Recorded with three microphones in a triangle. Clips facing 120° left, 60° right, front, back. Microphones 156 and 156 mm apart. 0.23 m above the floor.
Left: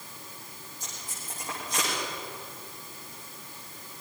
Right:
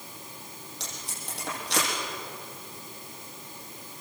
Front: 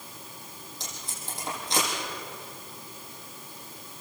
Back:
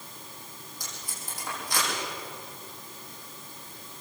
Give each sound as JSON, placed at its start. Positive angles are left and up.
{"t": 0.8, "sound": "tape being pulled", "azimuth_deg": -65, "distance_m": 9.0}